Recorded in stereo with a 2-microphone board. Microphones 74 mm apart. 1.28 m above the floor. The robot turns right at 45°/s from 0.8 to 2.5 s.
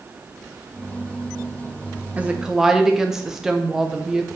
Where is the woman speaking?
20° right (ahead or behind), 0.9 m; by 4.4 s 5° right (ahead or behind), 0.9 m.